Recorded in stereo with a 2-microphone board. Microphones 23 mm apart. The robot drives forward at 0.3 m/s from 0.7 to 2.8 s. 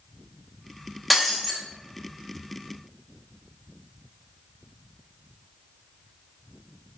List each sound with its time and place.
1.1 s breaking glass: 5° right (ahead or behind), 1.0 m